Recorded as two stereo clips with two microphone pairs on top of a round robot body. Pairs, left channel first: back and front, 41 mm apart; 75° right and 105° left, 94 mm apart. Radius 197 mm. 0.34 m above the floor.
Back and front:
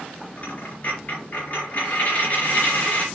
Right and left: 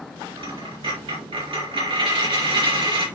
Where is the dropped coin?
125° left, 4.5 m.